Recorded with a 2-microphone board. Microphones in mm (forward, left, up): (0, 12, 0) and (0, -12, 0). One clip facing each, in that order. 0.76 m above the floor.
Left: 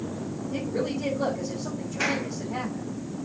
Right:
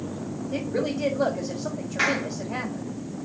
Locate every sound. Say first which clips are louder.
0.5 s a woman speaking: right 2 dB; 55° right (ahead or behind), 5 m
2.0 s a clap: right 3 dB; 80° right, 7 m